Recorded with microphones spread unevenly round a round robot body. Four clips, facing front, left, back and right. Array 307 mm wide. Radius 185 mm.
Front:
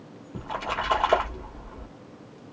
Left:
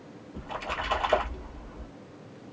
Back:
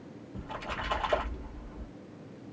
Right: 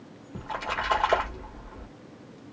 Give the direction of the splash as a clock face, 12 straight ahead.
1 o'clock.